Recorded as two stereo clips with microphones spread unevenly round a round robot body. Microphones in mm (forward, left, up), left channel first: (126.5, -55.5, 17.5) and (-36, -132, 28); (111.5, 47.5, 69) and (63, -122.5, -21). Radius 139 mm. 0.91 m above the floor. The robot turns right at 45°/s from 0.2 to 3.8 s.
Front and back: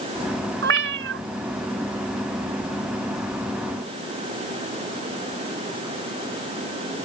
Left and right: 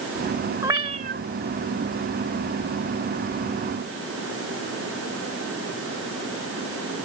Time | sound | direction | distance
0.6 | a cat meowing | 160° left | ?